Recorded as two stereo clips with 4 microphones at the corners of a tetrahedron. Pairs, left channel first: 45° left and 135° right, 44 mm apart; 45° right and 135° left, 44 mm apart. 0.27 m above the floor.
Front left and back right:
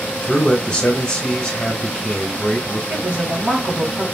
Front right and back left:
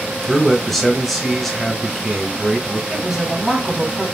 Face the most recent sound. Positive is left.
turn(degrees=-145)